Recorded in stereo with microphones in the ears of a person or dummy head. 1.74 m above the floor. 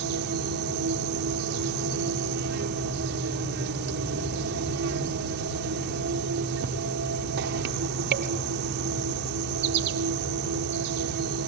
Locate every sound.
0.0 s an insect: 60° right (ahead or behind), 1.0 m